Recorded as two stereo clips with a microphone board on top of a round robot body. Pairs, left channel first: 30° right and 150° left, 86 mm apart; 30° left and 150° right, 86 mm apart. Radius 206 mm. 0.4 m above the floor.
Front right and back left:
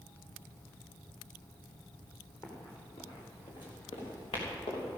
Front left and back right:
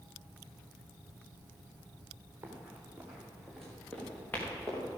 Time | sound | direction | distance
2.4 | running footsteps | 80° right | 3.5 m